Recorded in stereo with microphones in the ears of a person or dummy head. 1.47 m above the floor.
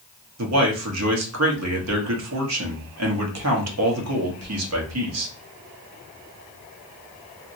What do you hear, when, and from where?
0.4 s a man speaking: 75° right (ahead or behind), 1.0 m